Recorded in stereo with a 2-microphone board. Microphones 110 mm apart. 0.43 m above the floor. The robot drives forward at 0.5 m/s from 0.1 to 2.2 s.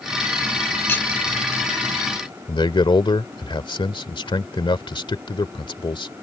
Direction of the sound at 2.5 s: 50° left (ahead or behind).